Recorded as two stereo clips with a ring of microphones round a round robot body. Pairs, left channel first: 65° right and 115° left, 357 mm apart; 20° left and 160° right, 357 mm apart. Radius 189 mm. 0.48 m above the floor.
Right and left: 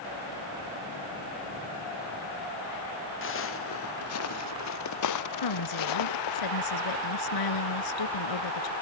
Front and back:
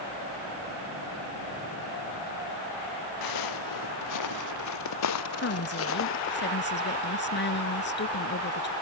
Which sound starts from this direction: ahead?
Footsteps, at 3.2 s.